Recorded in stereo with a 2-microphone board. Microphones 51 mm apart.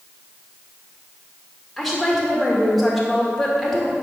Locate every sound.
1.8 s a woman speaking: centre (ahead or behind), 0.9 m